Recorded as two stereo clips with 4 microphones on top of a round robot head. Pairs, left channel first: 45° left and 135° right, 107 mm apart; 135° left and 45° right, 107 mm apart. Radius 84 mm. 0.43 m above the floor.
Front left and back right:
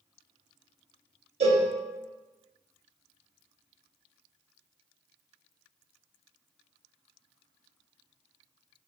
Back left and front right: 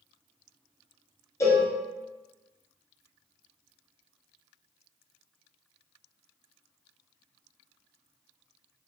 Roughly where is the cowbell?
Behind.